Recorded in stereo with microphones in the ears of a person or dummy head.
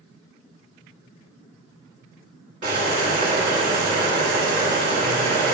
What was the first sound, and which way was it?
Boiling, 40° right (ahead or behind).